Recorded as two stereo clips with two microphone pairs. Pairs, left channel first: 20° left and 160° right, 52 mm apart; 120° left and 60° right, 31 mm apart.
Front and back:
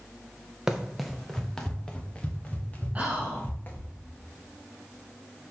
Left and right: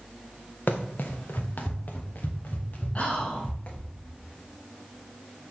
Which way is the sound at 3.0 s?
160° left.